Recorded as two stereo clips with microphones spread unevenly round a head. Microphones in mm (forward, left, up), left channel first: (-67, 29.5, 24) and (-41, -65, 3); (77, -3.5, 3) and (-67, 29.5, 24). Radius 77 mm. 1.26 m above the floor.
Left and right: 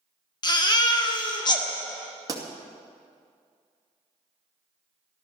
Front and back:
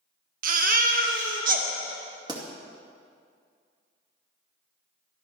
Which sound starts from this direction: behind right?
A pop, at 2.3 s.